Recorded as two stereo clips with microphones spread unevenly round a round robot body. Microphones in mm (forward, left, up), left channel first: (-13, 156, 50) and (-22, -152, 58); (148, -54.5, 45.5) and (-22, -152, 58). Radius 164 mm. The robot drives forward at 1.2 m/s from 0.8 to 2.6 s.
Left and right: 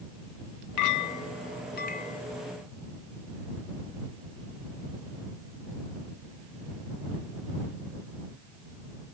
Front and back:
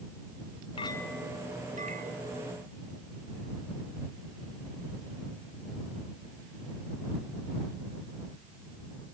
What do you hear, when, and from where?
0.8 s a clink: 90° left; by 2.2 s 155° left